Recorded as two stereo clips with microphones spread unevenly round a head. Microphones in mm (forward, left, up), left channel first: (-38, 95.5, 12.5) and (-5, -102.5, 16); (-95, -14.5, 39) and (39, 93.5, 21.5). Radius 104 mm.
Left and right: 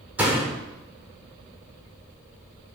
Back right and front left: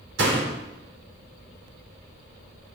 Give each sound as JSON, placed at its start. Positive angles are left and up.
{"t": 0.2, "sound": "a door slam", "azimuth_deg": 0, "distance_m": 3.5}